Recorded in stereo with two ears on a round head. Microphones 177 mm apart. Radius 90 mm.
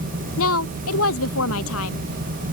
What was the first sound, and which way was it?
A woman speaking, 75° left (ahead or behind).